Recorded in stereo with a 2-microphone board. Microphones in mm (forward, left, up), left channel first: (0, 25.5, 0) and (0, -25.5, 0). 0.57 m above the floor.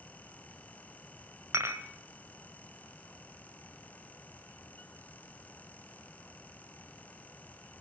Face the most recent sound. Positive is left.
turn(degrees=-65)  # may be behind; listen again after turning